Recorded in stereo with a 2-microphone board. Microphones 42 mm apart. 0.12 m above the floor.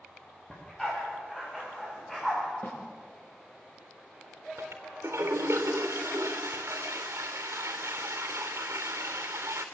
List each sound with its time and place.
0.5 s a dog barking: 10° left (ahead or behind), 9 m
2.6 s a snare drum: 45° left (ahead or behind), 6.5 m
4.6 s a toilet flushing: 85° right, 3.5 m